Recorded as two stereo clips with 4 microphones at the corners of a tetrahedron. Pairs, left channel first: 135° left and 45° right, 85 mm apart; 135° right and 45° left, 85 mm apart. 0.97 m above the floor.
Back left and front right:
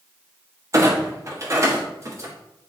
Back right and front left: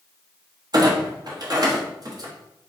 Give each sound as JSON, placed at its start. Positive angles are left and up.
{"t": 0.7, "sound": "a clunk", "azimuth_deg": 5, "distance_m": 0.9}